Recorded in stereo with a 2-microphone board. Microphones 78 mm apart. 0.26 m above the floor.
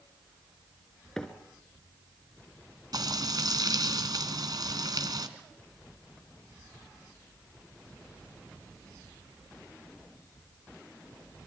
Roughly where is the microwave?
Centre.